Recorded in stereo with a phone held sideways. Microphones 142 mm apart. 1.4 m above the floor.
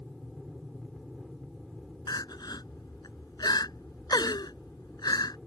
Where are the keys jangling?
I don't hear keys jangling.